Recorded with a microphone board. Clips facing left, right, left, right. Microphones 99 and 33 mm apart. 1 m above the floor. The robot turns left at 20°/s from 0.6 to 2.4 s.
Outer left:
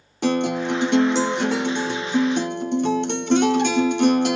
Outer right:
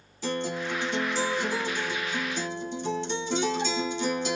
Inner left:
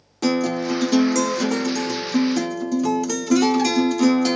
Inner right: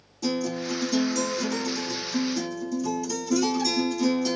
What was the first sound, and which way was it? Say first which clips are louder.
A guitar: outer left 9 dB, inner left 7 dB; 105° left.